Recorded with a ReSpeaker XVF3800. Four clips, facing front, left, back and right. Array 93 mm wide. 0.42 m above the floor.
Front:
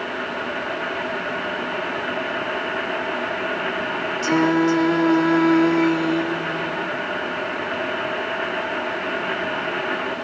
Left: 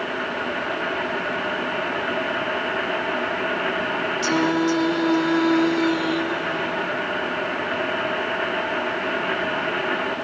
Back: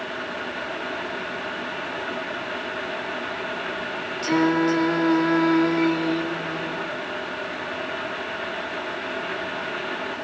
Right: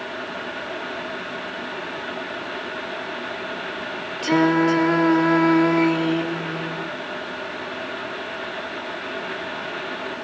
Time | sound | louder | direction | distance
4.2 | singing | right 4 dB, front 2 dB | 75° right | 1.0 m